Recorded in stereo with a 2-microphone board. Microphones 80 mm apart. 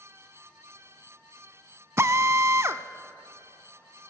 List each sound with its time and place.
2.0 s a drill: 35° right (ahead or behind), 0.6 m